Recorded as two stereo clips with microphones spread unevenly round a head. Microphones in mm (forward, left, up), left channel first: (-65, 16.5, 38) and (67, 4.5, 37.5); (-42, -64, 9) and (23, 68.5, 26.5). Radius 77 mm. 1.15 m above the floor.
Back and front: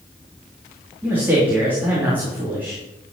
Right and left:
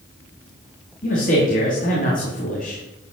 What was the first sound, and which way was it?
A man speaking, 85° right.